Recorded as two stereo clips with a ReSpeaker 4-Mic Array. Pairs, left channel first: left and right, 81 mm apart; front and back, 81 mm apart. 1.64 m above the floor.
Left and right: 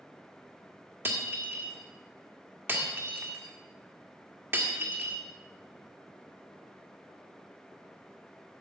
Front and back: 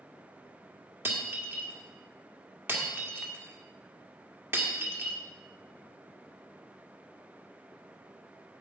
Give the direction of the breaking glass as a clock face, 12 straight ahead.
4 o'clock.